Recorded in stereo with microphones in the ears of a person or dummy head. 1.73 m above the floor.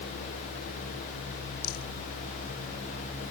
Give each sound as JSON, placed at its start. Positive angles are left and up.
{"t": 1.6, "sound": "a rattle", "side_deg": 55}